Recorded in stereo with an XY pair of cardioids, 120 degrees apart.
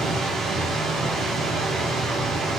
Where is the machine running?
70° right, 1.9 m.